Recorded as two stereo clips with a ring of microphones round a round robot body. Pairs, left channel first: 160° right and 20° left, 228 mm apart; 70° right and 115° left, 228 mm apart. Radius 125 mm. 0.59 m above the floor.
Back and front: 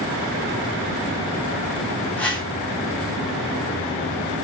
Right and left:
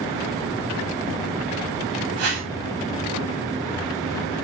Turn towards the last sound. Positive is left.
turn(degrees=120)